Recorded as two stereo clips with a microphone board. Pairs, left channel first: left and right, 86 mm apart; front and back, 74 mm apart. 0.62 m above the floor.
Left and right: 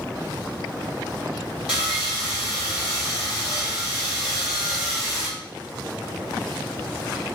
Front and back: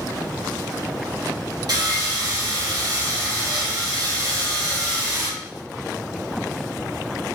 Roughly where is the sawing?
Behind.